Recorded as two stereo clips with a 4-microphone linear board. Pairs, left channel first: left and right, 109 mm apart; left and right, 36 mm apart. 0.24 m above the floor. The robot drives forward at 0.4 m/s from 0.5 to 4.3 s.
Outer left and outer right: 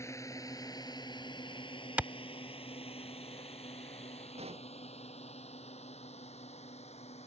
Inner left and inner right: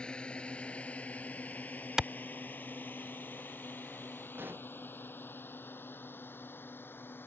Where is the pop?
70° right (ahead or behind).